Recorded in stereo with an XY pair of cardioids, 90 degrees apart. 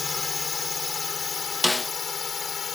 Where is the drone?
35° left; by 2.8 s 50° left.